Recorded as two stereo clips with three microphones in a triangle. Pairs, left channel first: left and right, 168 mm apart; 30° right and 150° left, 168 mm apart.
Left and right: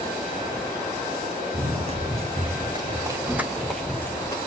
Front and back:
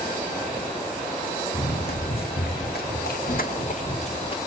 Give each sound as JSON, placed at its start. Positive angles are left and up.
{"t": 1.5, "sound": "running footsteps", "azimuth_deg": -45, "distance_m": 1.8}